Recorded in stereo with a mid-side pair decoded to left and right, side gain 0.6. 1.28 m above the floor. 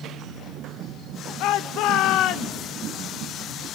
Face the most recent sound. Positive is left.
turn(degrees=65)